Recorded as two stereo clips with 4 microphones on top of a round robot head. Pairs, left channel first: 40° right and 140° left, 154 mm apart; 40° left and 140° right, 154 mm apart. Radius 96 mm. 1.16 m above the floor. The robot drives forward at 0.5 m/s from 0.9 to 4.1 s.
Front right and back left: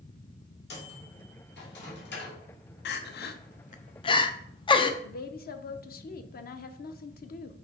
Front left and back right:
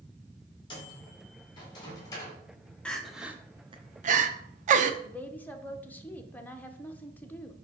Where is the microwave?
25° right, 2.5 m; by 2.4 s 30° right, 1.8 m.